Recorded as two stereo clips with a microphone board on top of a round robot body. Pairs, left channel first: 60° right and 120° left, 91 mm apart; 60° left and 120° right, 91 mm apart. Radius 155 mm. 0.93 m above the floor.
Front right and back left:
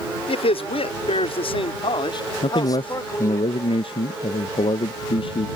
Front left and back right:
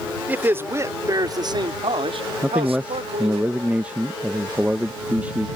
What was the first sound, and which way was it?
A man speaking, 50° right.